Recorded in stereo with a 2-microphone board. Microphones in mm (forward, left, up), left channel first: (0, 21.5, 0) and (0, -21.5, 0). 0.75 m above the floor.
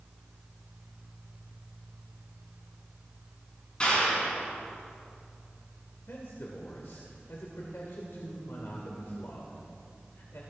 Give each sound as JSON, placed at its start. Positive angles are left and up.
{"t": 3.8, "sound": "a clap", "side_deg": 25, "distance_m": 7.0}
{"t": 6.1, "sound": "a man speaking", "side_deg": 70, "distance_m": 2.0}